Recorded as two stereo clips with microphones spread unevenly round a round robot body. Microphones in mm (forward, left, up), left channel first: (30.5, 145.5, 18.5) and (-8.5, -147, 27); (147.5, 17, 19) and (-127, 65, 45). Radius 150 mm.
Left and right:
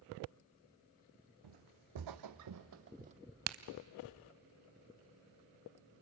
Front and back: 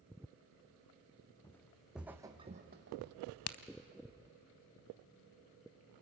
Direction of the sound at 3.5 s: 55° right.